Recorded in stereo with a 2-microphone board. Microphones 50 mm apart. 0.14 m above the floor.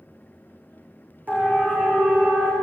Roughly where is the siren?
Right.